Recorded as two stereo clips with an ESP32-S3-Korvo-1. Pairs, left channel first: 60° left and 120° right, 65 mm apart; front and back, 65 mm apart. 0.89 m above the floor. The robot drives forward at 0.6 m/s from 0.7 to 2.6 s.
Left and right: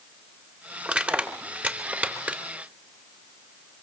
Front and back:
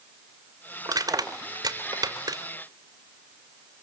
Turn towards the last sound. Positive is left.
turn(degrees=170)